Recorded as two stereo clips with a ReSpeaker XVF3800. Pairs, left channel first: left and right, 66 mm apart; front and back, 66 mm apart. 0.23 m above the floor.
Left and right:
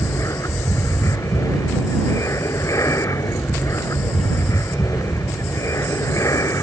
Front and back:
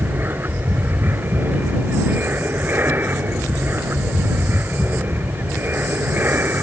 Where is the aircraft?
125° left.